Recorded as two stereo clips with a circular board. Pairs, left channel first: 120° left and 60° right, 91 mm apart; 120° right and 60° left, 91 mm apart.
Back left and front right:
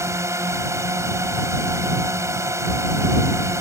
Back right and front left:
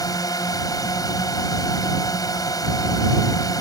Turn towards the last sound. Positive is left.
turn(degrees=-100)